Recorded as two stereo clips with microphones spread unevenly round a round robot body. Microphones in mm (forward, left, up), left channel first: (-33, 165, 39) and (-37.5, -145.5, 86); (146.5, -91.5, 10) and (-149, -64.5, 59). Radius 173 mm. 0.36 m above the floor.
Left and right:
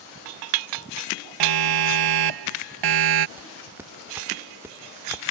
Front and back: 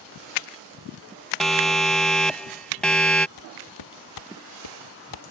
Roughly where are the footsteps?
Ahead.